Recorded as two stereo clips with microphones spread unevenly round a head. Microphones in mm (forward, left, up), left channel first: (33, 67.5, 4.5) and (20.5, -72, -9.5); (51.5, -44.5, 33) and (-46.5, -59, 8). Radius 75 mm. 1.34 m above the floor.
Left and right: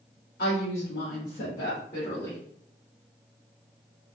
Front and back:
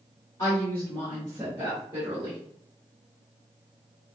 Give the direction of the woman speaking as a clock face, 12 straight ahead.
9 o'clock.